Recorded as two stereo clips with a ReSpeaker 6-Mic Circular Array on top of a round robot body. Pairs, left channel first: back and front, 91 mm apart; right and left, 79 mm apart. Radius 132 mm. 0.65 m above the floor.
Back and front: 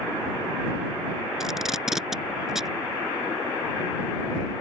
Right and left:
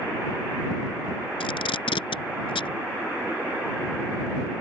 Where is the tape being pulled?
85° right.